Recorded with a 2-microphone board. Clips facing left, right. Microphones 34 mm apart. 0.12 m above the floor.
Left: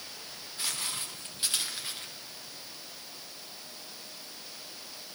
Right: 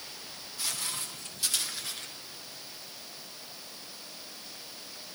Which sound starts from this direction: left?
Footsteps, at 0.6 s.